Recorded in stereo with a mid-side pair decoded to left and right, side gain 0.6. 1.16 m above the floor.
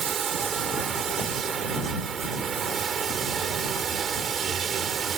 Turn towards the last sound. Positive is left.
turn(degrees=-35)